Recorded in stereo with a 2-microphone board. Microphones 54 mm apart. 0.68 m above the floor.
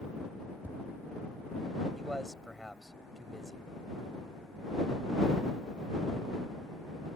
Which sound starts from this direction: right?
Tapping, at 0.6 s.